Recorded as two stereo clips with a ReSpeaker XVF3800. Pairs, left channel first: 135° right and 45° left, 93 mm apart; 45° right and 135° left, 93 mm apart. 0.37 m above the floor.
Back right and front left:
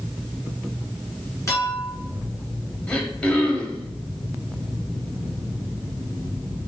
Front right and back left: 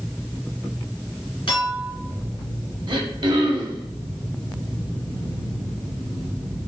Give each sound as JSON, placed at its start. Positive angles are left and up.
{"t": 1.5, "sound": "a clink", "azimuth_deg": -75, "distance_m": 2.5}
{"t": 2.9, "sound": "throat clearing", "azimuth_deg": 150, "distance_m": 1.0}